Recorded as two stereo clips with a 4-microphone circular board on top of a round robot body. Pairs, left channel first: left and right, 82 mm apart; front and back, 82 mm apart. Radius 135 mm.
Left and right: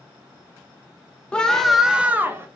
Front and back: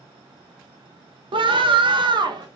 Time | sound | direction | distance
1.3 | a scream | 170° left | 0.9 m